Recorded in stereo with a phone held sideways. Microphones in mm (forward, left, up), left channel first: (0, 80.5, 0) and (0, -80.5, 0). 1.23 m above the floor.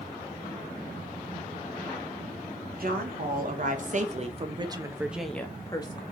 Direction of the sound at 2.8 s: 65° right (ahead or behind).